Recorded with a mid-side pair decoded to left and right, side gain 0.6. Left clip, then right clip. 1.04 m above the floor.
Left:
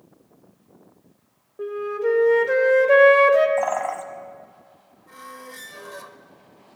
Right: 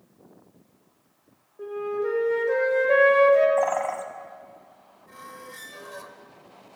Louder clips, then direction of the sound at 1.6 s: Left 3 dB; 50° left.